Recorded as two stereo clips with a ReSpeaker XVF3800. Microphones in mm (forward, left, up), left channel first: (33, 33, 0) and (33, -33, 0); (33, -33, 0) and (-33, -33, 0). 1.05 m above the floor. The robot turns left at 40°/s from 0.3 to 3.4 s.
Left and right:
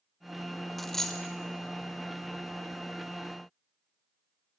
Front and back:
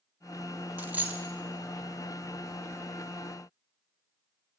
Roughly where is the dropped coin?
Behind.